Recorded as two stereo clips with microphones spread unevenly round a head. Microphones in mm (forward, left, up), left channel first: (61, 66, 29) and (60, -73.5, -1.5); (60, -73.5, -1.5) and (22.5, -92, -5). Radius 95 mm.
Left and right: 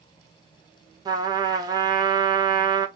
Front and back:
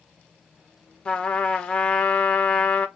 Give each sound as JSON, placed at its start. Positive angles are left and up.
{"t": 1.1, "sound": "a trumpet", "azimuth_deg": -40, "distance_m": 1.3}